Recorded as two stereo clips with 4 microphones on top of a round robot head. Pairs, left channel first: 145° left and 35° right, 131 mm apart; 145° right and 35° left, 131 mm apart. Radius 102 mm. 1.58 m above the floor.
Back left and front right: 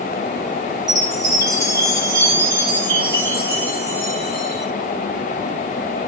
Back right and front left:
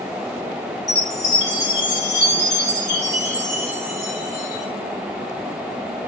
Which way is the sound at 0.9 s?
100° right.